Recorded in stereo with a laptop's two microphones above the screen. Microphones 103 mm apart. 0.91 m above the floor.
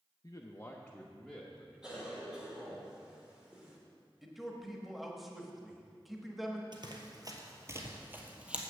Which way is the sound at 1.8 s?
10° right (ahead or behind).